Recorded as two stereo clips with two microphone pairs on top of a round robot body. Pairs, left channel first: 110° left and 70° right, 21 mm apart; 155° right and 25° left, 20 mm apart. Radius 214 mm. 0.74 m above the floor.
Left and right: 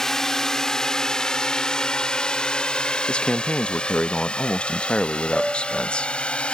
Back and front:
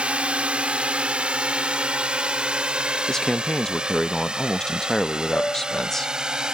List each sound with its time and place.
0.0 s a drone: 45° left; by 6.5 s 80° left
3.1 s a man speaking: 140° left
5.3 s a piano: 145° right